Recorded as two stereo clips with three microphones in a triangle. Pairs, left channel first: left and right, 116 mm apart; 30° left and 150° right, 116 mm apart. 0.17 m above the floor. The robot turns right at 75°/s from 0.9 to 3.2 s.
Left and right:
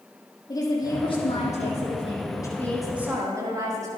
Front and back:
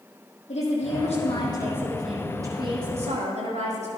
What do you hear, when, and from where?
0.5 s a woman speaking: 35° left, 6 m; by 3.9 s 155° right, 6 m